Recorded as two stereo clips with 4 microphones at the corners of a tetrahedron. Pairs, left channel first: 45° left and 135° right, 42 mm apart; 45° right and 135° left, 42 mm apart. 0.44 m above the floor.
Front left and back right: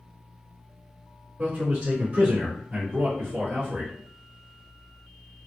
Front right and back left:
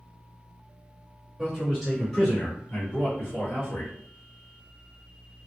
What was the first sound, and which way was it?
A man speaking, 135° right.